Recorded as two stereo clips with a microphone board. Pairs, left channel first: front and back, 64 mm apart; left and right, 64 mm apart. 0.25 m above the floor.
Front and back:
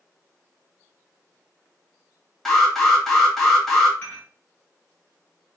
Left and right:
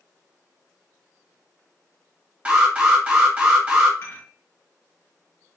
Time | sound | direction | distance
2.5 | an alarm | 75° right | 1.2 m
4.0 | dishes clattering | 60° left | 1.7 m